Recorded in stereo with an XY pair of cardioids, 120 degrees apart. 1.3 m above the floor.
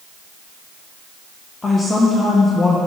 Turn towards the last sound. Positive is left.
turn(degrees=30)